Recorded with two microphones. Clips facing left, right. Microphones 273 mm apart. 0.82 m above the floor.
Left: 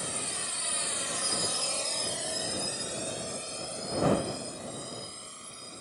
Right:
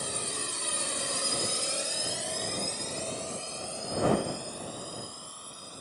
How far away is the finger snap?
No finger snap in this recording.